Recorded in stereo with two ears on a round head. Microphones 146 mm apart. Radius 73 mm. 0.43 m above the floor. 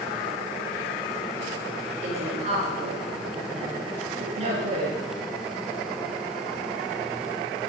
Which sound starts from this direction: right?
A woman speaking, at 2.0 s.